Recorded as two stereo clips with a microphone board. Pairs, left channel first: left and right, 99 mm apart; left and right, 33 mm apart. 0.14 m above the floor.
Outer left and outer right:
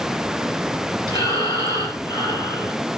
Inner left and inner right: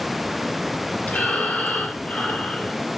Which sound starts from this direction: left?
Breathing, at 1.1 s.